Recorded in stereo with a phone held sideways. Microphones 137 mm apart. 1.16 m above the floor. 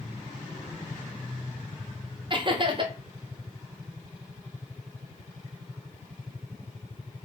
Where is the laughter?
35° right (ahead or behind), 0.6 m.